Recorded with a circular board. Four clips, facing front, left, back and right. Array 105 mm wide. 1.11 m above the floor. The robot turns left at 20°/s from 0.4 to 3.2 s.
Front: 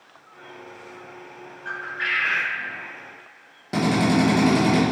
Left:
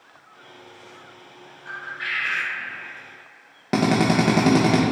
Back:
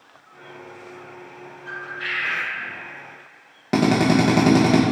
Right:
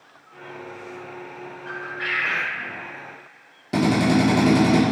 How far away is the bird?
About 1.2 m.